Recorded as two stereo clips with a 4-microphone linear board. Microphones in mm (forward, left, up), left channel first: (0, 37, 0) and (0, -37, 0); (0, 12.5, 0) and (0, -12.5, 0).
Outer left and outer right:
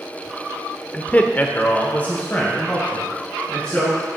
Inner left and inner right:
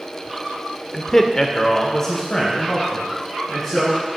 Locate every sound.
0.9 s a man speaking: 15° left (ahead or behind), 0.8 m